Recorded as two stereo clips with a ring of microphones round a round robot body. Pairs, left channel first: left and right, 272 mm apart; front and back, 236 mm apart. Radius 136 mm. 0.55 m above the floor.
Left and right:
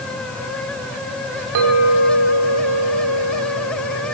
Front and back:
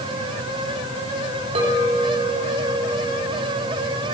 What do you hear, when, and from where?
1.6 s a clink: 110° right, 2.5 m